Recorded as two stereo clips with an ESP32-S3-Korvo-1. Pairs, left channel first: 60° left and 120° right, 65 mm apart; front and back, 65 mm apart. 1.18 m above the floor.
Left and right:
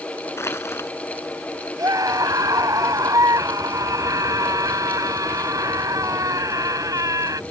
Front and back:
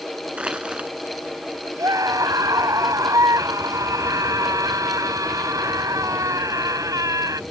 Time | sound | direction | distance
0.4 | crushing | 105° left | ?
1.8 | a scream | 150° right | ?